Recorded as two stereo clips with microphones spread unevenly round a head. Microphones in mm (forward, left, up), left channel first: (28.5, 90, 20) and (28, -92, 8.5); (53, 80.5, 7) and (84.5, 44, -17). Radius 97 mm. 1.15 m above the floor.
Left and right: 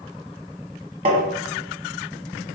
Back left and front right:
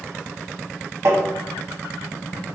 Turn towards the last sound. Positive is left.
turn(degrees=-30)